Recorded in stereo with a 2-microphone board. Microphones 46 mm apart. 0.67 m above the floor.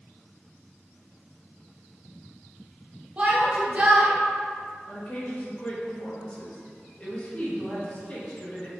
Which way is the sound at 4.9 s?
30° left (ahead or behind).